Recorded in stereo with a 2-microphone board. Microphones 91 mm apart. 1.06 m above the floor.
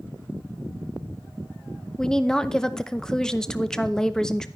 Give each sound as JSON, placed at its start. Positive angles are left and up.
{"t": 2.0, "sound": "a woman speaking", "side_deg": 5, "distance_m": 0.7}